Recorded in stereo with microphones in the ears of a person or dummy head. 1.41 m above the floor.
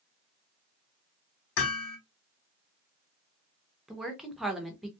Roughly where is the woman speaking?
Centre.